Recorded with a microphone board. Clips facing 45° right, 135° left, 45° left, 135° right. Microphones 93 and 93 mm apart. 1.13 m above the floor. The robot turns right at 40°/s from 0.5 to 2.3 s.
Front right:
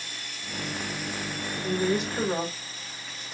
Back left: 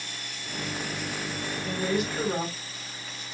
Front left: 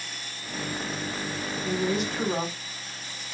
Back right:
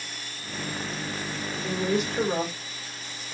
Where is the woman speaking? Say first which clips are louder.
Front right 2 dB, back right 1 dB; 115° right, 1.6 m; by 3.4 s 90° right, 1.6 m.